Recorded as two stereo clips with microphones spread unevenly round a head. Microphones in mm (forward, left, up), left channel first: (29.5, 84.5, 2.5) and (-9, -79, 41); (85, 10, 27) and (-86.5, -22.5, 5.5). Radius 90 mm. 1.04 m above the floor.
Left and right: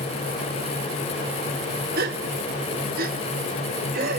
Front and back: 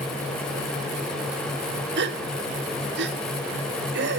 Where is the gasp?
145° right, 1.3 m.